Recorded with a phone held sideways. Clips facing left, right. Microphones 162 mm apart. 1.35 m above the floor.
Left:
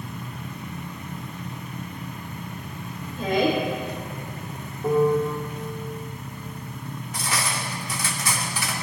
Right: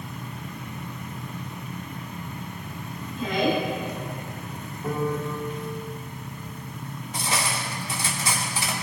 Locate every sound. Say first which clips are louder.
3.2 s a woman speaking: left 2 dB; 60° left (ahead or behind), 4 m
4.8 s a piano: left 8 dB; 35° left (ahead or behind), 2.5 m
7.1 s cutlery clinking: right 1 dB; 25° right (ahead or behind), 2 m